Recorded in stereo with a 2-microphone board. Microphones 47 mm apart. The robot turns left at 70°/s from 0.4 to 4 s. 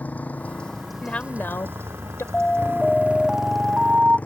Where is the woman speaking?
155° left; by 2.2 s 70° left.